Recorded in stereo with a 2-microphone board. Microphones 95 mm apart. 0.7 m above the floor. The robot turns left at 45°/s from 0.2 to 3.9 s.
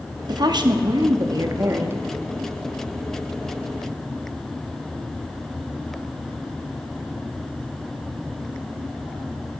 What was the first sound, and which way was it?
A woman speaking, 70° right.